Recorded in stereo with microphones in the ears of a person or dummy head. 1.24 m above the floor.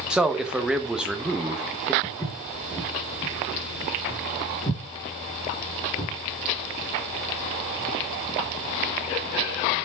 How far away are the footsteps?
About 4.5 m.